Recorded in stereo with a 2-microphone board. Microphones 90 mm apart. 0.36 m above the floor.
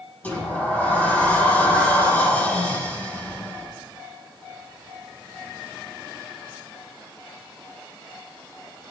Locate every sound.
0.2 s a sliding door: 20° left (ahead or behind), 6.5 m